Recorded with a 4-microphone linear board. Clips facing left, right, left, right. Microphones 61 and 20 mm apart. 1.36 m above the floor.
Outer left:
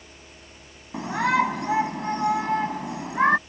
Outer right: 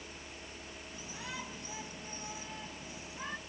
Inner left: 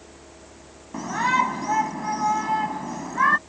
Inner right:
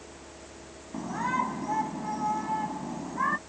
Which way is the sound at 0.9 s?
70° left (ahead or behind).